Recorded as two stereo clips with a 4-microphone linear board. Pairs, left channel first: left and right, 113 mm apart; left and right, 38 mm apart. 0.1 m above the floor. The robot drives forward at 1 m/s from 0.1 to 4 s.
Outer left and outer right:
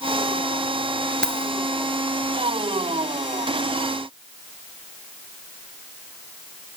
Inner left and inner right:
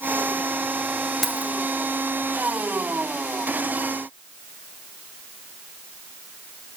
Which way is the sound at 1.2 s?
10° left (ahead or behind).